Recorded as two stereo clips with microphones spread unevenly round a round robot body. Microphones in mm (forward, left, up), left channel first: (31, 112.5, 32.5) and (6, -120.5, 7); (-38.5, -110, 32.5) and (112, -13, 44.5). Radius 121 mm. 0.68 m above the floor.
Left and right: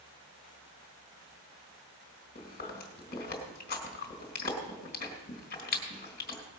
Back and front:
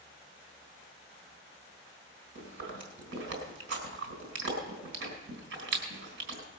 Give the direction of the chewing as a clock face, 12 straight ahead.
11 o'clock.